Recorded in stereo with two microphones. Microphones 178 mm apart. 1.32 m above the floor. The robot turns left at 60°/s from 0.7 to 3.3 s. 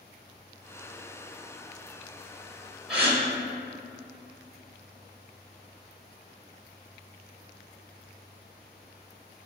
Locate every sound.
2.9 s a gasp: 5° right (ahead or behind), 2.5 m; by 3.2 s 20° right (ahead or behind), 2.5 m